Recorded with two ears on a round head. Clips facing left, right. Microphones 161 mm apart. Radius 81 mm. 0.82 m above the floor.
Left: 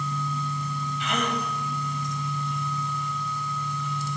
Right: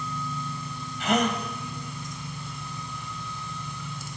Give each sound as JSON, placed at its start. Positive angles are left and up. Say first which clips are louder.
{"t": 1.0, "sound": "a gasp", "louder": "right 5 dB", "side_deg": -40, "distance_m": 3.5}